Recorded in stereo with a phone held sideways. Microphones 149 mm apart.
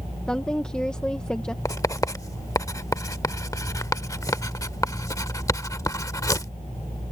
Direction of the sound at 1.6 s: 20° left (ahead or behind).